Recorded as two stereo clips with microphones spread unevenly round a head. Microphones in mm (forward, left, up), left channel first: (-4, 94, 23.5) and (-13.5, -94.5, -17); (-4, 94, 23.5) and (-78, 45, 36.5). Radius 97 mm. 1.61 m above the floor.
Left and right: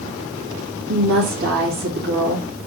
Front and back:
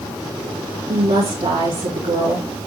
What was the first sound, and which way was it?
A woman speaking, 130° right.